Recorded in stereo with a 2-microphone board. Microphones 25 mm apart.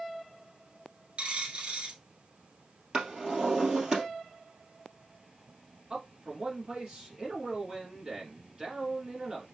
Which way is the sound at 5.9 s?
30° right (ahead or behind).